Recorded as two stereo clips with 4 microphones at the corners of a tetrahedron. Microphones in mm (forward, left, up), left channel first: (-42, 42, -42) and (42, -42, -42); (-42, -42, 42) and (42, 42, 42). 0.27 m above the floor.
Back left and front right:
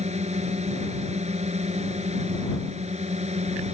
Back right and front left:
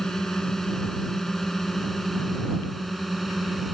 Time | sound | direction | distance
0.0 | a drone | 50° right | ?